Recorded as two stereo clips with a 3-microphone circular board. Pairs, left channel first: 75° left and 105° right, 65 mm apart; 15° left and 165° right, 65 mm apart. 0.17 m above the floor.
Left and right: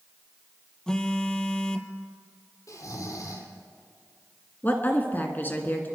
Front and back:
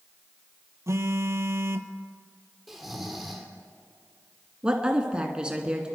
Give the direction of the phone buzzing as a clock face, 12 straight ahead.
7 o'clock.